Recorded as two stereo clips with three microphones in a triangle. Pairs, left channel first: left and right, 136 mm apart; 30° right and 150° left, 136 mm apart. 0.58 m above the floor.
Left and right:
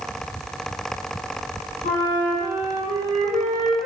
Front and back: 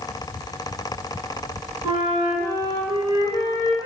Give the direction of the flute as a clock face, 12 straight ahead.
9 o'clock.